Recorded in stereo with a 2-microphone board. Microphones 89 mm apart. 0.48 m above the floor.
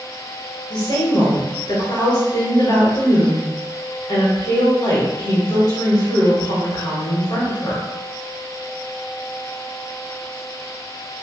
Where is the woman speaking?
55° left (ahead or behind), 1.8 m.